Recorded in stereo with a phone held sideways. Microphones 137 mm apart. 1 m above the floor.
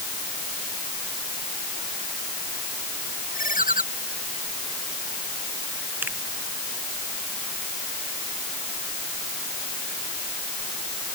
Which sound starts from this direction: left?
A ringtone, at 3.3 s.